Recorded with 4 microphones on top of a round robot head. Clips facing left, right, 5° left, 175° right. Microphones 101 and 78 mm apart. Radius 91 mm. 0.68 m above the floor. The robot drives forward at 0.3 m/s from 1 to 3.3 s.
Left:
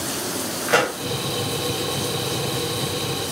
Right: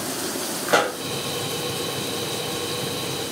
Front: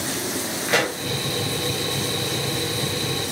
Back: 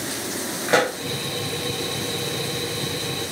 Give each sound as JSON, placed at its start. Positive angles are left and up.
{"t": 0.7, "sound": "a pop", "azimuth_deg": -160, "distance_m": 1.2}